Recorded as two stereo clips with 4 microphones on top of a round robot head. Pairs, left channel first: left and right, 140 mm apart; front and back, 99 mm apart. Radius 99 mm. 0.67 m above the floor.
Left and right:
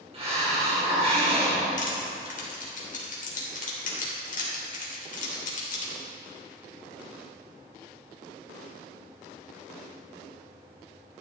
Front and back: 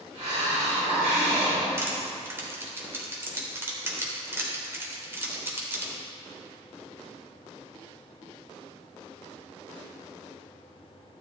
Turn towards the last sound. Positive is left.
turn(degrees=115)